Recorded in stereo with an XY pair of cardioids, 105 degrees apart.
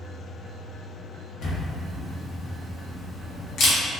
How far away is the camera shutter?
About 0.8 m.